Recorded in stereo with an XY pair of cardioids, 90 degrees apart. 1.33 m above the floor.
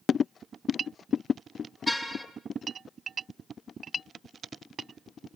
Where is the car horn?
Straight ahead, 6 m.